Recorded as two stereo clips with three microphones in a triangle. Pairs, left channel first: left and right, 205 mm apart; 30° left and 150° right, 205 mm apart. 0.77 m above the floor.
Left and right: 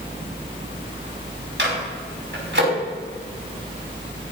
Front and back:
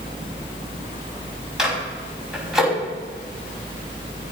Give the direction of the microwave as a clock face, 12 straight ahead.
2 o'clock.